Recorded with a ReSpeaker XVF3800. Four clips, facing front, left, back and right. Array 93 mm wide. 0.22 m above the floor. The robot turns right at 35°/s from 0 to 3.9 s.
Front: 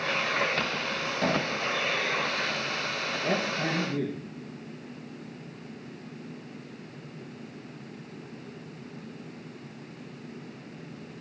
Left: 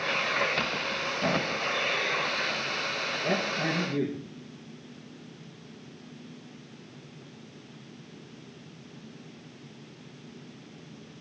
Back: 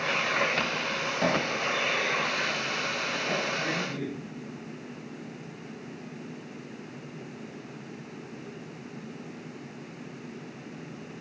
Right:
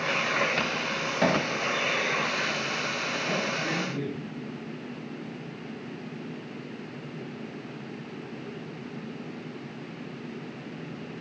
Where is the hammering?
105° right, 4 m; by 1.5 s 95° right, 4 m.